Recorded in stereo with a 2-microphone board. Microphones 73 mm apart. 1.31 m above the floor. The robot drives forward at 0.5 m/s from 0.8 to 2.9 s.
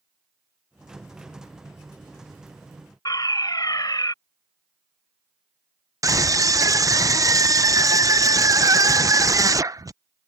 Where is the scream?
50° right (ahead or behind).